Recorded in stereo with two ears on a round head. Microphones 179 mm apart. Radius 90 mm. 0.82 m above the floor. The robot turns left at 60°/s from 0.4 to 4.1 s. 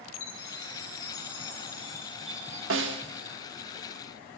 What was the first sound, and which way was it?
A chime, 110° left.